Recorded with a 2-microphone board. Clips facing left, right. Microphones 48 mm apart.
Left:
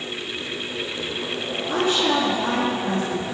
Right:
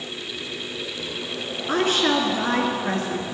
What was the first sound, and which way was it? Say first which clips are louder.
A woman speaking: right 1 dB; 65° right (ahead or behind).